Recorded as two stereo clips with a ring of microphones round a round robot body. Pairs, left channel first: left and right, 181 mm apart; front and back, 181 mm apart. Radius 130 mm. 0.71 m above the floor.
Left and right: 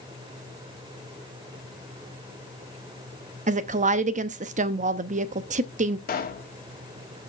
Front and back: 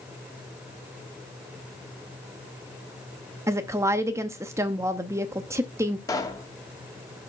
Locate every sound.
3.5 s a woman speaking: 110° right, 0.7 m
6.1 s a pop: 70° left, 1.9 m